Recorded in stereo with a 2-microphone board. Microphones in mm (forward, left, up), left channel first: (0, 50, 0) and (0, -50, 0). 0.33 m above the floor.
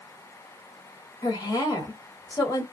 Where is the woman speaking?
40° left (ahead or behind), 1.5 m.